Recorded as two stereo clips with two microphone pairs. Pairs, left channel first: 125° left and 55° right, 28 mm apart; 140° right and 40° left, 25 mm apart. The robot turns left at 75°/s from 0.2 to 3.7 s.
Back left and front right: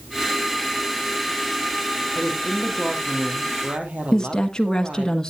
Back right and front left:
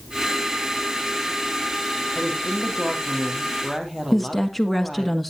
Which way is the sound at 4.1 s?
135° left.